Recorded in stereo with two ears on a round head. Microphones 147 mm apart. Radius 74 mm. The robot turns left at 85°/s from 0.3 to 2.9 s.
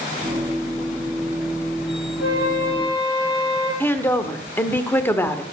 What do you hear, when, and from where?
2.2 s a flute: 80° left, 9.5 m; by 3.7 s 20° left, 9.5 m
3.8 s a woman speaking: 15° left (ahead or behind), 1.2 m